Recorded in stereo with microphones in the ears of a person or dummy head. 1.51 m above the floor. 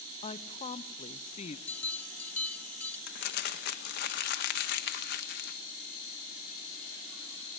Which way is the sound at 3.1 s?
50° left (ahead or behind).